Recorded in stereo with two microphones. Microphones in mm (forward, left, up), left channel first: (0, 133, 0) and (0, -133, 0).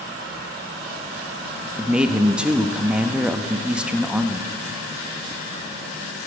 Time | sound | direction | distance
1.8 | a man speaking | 5° right (ahead or behind) | 0.6 m